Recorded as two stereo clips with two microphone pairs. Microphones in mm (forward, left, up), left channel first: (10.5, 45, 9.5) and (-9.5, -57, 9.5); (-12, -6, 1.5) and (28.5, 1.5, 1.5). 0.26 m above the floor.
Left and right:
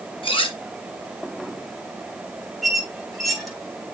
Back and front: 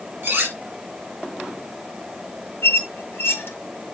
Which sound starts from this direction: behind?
A squeak, at 2.6 s.